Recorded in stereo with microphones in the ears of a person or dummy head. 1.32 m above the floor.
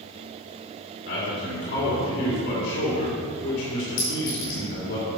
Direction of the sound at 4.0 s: 50° left (ahead or behind).